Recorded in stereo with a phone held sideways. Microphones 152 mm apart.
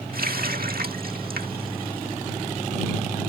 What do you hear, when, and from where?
0.1 s a running tap: 75° right (ahead or behind)